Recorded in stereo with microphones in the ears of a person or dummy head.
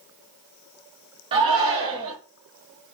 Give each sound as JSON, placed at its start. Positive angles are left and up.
{"t": 1.3, "sound": "a shout", "side_deg": -35, "distance_m": 0.8}